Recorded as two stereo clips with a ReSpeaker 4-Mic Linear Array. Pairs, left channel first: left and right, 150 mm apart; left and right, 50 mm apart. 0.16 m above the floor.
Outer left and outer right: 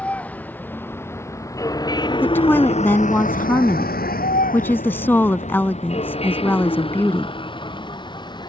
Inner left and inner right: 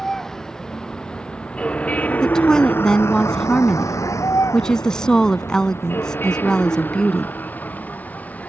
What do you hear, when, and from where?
0.0 s a vehicle: 10° left (ahead or behind); by 8.5 s 30° left (ahead or behind)
2.2 s a woman speaking: 15° left (ahead or behind)